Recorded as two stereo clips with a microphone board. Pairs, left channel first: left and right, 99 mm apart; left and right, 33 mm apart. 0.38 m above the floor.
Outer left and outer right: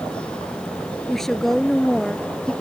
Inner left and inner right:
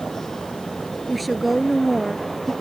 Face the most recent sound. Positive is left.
turn(degrees=5)  # may be behind; listen again after turning